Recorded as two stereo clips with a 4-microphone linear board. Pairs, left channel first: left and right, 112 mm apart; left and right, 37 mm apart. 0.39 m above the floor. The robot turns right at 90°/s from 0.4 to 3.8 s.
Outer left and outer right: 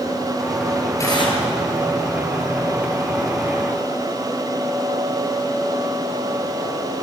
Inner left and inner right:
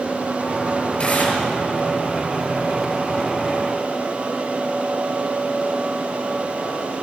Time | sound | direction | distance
1.0 | tearing paper | 30° left | 6.5 m